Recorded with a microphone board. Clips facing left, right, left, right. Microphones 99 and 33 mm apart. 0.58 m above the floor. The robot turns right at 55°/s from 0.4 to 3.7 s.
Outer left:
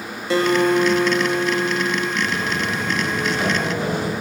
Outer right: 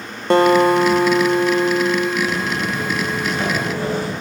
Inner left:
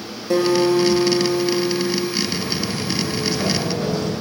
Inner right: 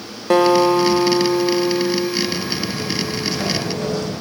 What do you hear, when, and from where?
0.3 s a guitar: 115° right, 0.5 m; by 2.1 s 20° right, 0.5 m
2.2 s footsteps: 45° right (ahead or behind), 3.5 m; by 4.1 s 10° left (ahead or behind), 2 m